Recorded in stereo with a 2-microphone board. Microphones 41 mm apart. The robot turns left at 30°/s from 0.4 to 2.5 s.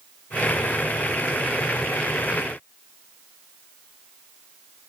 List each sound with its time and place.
Only background noise.